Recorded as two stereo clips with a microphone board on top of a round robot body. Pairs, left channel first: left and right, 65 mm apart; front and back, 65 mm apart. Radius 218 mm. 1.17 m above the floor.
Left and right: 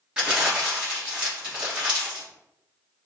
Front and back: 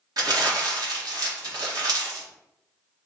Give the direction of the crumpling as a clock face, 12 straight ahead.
6 o'clock.